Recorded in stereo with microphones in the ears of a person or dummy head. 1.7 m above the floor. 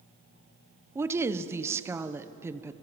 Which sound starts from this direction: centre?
A woman speaking, at 0.9 s.